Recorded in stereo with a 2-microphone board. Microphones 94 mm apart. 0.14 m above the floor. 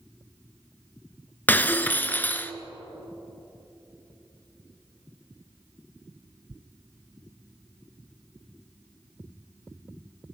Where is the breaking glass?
20° left (ahead or behind), 0.6 m.